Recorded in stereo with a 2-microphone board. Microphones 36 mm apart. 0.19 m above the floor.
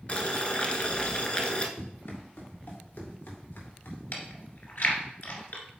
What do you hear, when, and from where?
0.1 s boiling: 35° left (ahead or behind), 1.1 m
1.8 s running footsteps: 80° left, 4.5 m; by 4.0 s 85° left, 3.5 m
4.1 s chewing: 65° left (ahead or behind), 2.0 m